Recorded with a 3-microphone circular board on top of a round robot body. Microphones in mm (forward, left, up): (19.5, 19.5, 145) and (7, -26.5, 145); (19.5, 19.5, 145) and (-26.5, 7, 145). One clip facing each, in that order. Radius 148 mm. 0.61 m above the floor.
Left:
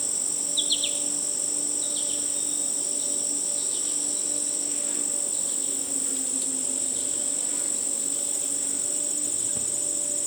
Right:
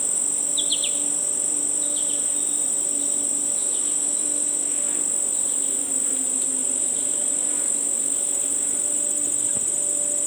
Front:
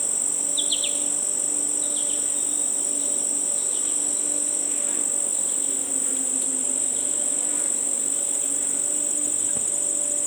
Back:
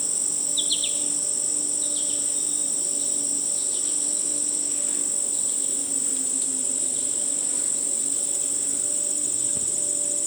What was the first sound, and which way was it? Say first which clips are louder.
An insect: right 3 dB, front 2 dB; 40° right.